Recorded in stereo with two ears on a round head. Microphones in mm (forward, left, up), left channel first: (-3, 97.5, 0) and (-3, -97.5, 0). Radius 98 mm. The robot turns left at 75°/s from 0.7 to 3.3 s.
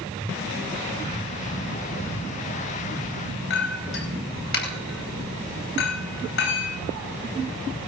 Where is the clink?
60° left (ahead or behind), 3.5 m.